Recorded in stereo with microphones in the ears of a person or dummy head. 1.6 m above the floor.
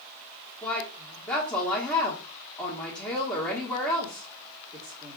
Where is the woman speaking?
10° left (ahead or behind), 1.3 m.